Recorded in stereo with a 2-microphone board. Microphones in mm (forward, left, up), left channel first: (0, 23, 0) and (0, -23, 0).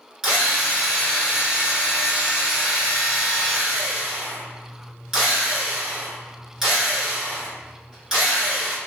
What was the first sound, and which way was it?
A drill, 10° right (ahead or behind).